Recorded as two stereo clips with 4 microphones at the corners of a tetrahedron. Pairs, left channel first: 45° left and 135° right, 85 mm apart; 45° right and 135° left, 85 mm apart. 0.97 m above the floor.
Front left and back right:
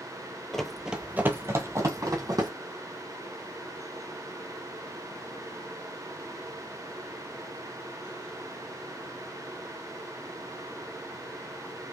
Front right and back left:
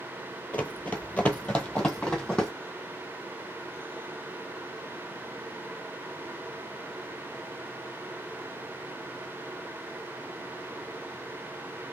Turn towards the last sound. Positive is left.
turn(degrees=-125)